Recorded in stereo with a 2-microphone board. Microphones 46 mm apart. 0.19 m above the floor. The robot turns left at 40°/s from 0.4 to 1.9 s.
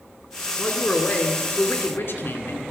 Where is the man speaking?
160° left, 2 m; by 2.6 s 110° left, 2 m.